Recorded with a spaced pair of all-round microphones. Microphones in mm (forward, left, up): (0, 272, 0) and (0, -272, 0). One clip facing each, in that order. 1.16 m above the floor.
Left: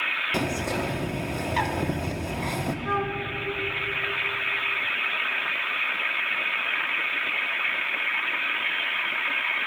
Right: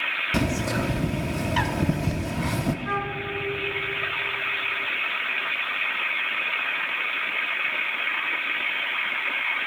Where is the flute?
45° right (ahead or behind), 0.6 m.